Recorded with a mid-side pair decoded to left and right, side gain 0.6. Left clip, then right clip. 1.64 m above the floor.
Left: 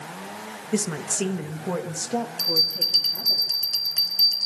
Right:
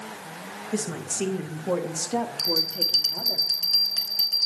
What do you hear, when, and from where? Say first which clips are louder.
0.7 s a woman speaking: left 4 dB; 30° left, 3 m; by 3.4 s 30° right, 4.5 m
2.4 s a bell: left 4 dB; straight ahead, 4.5 m